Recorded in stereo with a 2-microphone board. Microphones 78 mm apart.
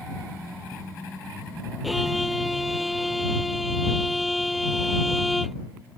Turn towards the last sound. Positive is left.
turn(degrees=0)  # may be behind; listen again after turning